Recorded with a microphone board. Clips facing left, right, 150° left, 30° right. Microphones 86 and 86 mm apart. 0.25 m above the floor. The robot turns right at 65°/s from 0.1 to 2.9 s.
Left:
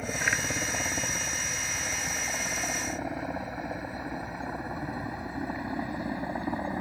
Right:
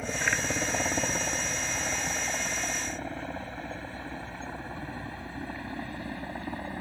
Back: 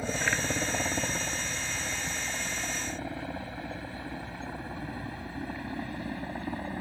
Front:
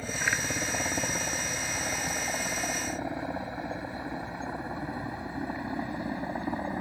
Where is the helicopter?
Straight behind; by 6.8 s 30° left.